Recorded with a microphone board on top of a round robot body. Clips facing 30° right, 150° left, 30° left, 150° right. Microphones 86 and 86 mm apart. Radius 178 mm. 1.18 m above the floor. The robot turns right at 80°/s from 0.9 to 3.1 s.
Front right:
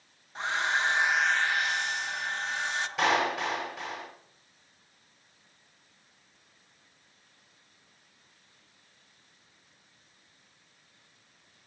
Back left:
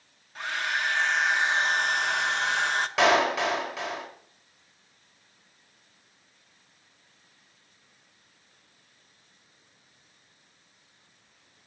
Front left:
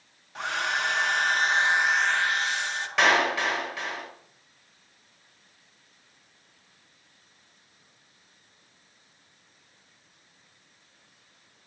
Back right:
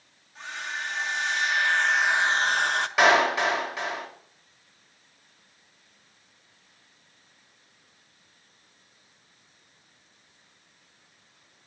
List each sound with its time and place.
0.3 s a hair dryer: 35° left, 1.1 m; by 2.9 s 165° right, 1.1 m
3.0 s a clap: 130° left, 4 m; by 4.1 s 140° left, 4 m